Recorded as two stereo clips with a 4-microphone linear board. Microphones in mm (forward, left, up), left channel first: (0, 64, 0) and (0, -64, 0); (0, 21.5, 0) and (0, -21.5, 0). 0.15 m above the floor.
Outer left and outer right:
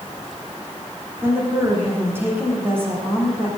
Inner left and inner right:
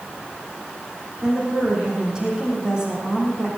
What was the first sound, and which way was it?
A woman speaking, 20° right (ahead or behind).